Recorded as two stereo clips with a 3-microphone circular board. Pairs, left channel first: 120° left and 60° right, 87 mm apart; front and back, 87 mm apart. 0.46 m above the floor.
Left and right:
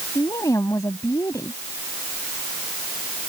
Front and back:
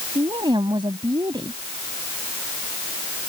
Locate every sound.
0.1 s a woman speaking: 165° left